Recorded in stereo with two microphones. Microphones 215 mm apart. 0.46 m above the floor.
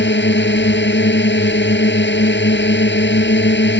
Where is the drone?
55° left (ahead or behind).